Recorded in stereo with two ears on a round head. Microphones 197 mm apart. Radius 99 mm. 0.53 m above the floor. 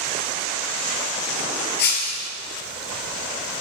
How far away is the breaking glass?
About 2.0 m.